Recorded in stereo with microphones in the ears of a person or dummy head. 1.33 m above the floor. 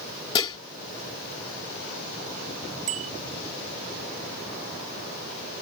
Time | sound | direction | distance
0.3 | dishes clattering | 25° left (ahead or behind) | ?
2.9 | a bicycle bell | 40° right (ahead or behind) | ?